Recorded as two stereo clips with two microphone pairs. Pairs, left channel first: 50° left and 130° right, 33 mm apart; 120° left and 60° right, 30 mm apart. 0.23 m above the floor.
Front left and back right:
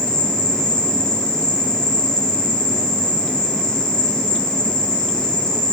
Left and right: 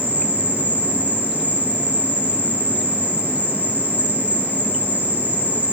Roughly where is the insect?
Ahead right.